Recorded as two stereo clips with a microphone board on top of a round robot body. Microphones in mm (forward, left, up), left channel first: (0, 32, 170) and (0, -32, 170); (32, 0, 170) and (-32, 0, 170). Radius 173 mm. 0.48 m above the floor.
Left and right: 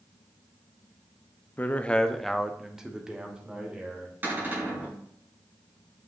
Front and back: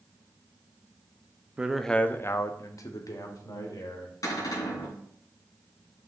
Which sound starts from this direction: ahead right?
A cupboard door, at 4.2 s.